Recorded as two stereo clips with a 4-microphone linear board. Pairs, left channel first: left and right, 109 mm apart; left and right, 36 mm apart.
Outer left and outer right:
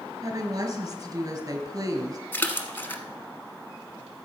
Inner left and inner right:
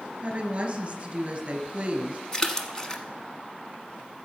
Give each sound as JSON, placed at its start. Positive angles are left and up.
{"t": 0.2, "sound": "a woman speaking", "side_deg": -30, "distance_m": 2.5}
{"t": 2.3, "sound": "a splash", "side_deg": 20, "distance_m": 1.1}